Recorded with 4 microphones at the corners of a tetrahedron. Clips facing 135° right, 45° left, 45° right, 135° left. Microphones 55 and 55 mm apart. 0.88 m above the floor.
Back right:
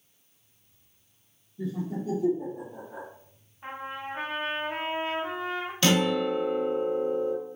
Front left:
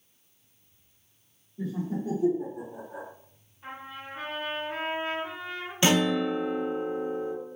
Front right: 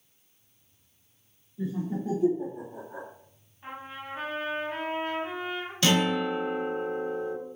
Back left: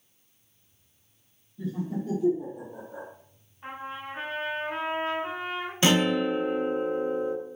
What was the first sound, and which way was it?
Laughter, 15° left.